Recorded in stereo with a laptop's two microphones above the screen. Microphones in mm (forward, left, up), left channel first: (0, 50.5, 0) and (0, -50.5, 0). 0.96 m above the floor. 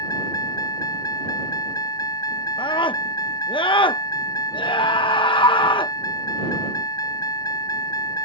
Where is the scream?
55° left (ahead or behind).